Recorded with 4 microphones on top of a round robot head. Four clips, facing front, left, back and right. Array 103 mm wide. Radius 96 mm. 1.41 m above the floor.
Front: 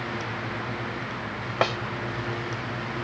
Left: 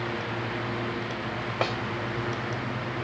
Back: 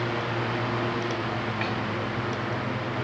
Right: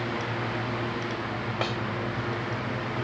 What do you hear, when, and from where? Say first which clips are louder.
1.6 s a snare drum: left 3 dB, front 10 dB; 20° left